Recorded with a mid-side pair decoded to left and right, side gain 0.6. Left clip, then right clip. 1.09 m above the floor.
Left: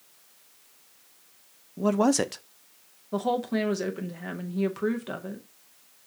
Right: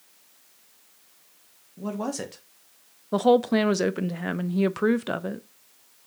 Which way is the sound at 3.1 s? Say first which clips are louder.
Right 7 dB; 40° right.